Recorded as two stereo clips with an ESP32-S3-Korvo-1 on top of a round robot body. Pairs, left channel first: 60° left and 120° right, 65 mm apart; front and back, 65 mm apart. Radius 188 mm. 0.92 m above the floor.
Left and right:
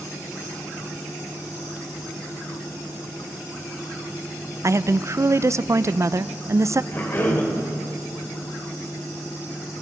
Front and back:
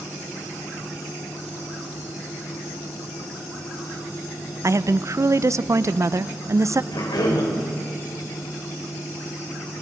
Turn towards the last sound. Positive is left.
turn(degrees=0)